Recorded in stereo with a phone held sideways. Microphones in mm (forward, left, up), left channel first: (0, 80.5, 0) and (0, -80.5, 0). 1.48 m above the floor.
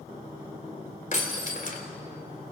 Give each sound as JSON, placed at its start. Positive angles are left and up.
{"t": 1.1, "sound": "breaking glass", "side_deg": 55, "distance_m": 3.0}